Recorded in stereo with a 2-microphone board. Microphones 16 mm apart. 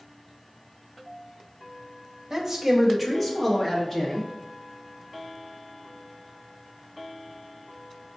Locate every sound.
2.3 s a man speaking: 25° right (ahead or behind), 1.1 m; by 4.3 s 30° left (ahead or behind), 1.5 m